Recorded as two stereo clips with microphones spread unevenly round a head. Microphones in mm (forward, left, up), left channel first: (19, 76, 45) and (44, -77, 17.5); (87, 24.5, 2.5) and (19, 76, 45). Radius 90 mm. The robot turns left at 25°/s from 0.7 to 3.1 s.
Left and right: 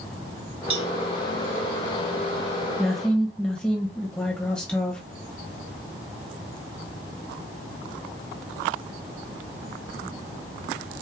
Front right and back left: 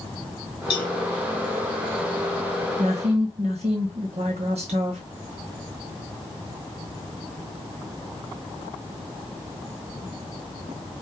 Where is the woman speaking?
170° right, 0.9 m; by 5.0 s 175° right, 0.9 m.